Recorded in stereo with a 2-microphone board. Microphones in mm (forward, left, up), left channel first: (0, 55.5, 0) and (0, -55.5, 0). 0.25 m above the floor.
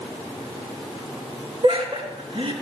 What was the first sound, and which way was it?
Laughter, 60° right (ahead or behind).